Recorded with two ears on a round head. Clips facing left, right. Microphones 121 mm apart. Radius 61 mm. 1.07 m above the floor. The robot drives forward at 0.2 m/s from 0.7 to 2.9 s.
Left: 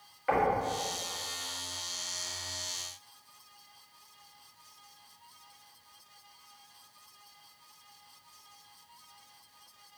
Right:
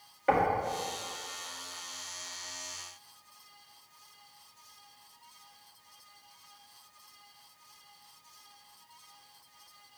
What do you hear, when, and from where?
0.3 s knocking: 40° right (ahead or behind), 1.5 m